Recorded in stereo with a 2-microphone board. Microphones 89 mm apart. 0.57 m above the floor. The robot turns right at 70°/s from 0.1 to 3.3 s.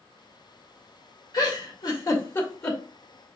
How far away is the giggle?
About 1.5 m.